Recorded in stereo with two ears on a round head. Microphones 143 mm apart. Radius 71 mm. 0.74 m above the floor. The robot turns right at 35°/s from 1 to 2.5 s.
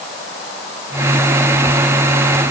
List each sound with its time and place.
Only background noise.